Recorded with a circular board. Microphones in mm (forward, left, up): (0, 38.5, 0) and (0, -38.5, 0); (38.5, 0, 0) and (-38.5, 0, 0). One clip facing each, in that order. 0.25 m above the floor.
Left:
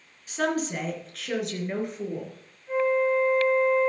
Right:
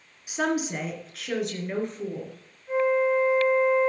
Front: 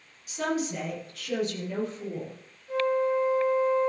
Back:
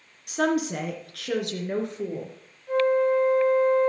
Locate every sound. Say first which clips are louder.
0.3 s a woman speaking: even, back 5 dB; 165° right, 2.5 m; by 2.4 s 170° left, 3.5 m
2.7 s a flute: right 1 dB, back 4 dB; straight behind, 1.7 m